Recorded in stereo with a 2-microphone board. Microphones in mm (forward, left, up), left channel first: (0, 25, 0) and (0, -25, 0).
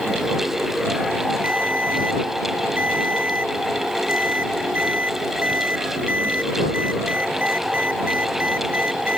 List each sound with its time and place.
1.4 s a ringtone: 30° right (ahead or behind)